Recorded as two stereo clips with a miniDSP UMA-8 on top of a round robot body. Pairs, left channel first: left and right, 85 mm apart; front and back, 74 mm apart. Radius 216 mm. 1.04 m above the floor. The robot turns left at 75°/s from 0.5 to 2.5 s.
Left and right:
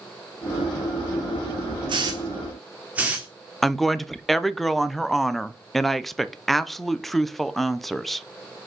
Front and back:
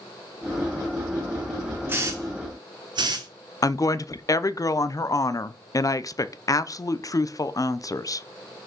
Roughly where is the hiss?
Behind right.